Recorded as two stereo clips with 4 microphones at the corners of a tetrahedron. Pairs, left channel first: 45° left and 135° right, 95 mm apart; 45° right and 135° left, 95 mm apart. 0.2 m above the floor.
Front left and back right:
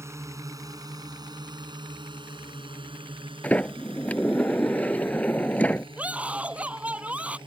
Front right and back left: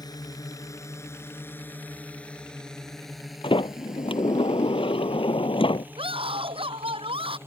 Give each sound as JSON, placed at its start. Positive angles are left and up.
{"t": 0.0, "sound": "a drone", "azimuth_deg": -80}
{"t": 3.4, "sound": "a sliding door", "azimuth_deg": -30}
{"t": 6.0, "sound": "a scream", "azimuth_deg": 150}